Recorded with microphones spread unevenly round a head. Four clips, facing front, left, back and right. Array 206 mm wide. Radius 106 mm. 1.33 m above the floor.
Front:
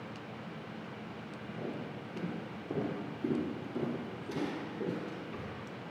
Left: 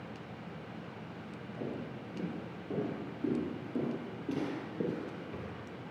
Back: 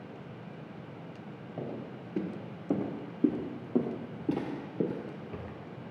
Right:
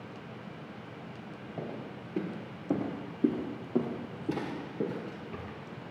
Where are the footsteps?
135° right, 3.5 m; by 5.5 s 160° left, 1.7 m.